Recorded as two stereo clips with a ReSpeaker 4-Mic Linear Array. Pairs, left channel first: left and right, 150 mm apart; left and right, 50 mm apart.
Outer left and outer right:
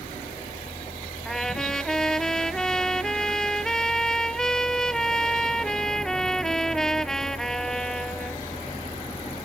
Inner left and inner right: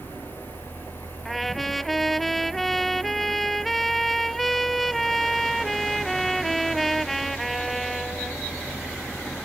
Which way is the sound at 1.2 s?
5° left (ahead or behind).